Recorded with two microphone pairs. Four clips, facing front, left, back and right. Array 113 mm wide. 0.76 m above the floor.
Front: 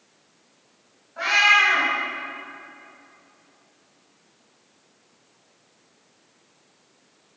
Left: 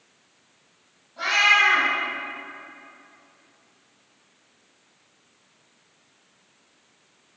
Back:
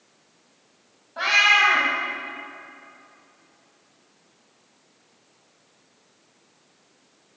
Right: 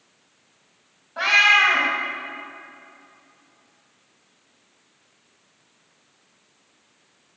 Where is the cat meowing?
120° right, 2 m.